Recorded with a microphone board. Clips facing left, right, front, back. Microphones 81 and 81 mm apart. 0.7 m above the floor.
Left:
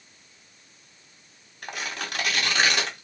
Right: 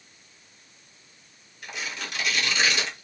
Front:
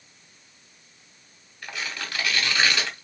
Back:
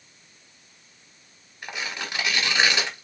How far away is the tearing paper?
About 1.1 m.